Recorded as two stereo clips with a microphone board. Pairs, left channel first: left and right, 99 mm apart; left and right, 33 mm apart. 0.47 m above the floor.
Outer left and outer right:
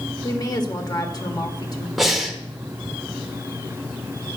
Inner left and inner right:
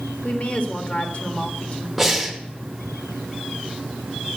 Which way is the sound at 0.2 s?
45° left (ahead or behind).